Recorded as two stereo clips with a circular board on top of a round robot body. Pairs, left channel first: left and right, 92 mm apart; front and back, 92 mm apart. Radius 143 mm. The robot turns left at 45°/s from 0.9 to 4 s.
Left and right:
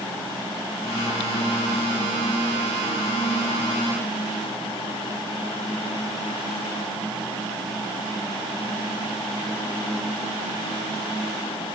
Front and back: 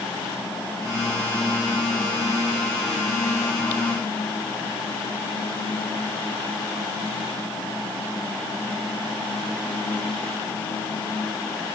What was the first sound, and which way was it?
Only background noise.